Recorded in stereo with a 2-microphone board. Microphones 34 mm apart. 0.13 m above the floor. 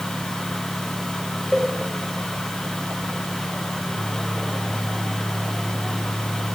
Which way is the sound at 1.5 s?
10° left (ahead or behind).